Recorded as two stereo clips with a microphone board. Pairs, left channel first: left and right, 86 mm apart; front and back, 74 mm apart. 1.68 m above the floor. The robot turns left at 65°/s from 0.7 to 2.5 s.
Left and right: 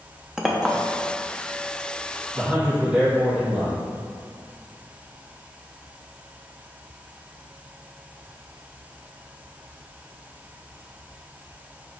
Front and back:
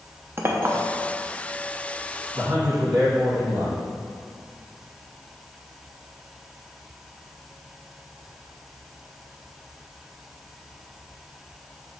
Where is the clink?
170° right, 0.7 m; by 0.8 s 175° right, 0.7 m.